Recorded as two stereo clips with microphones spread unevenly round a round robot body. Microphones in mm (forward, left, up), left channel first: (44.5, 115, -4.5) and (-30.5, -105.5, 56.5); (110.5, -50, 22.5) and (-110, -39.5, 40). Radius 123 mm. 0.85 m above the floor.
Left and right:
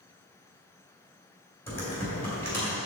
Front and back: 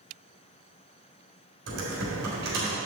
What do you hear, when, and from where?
1.7 s typing on a keyboard: 155° left, 1.8 m